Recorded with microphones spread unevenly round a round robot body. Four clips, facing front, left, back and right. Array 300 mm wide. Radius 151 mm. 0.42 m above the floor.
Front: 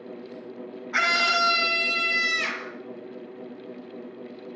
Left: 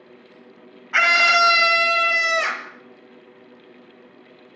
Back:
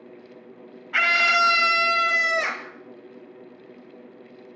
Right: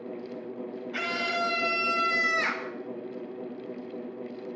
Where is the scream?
90° left, 2.5 m; by 2.7 s 150° left, 2.5 m.